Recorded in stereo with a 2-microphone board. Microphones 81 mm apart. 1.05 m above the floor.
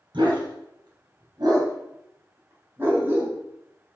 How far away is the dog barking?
About 3.5 m.